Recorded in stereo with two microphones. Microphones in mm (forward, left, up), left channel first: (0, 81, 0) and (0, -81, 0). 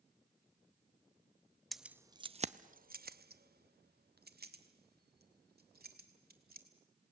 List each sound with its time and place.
1.7 s keys jangling: centre (ahead or behind), 0.5 m; by 6.7 s 70° right (ahead or behind), 2.5 m